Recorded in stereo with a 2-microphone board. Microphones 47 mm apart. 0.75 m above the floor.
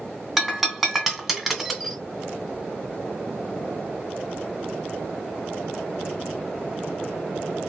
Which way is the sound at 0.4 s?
Centre (ahead or behind).